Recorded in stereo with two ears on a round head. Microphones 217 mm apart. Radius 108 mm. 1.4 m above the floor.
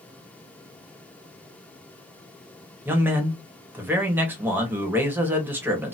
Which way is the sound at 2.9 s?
10° right (ahead or behind).